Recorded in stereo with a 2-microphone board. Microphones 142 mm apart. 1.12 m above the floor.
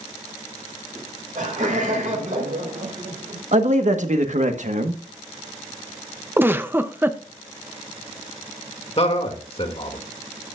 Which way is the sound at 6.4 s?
15° right (ahead or behind).